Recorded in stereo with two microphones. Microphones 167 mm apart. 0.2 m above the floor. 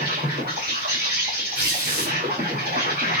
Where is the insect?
65° right (ahead or behind), 2.5 m.